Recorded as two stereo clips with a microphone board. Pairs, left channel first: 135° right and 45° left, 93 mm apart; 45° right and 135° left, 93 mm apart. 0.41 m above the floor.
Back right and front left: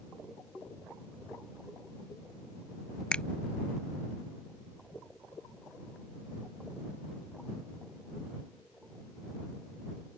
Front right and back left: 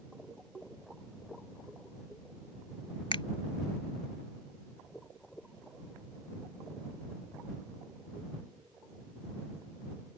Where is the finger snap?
55° right.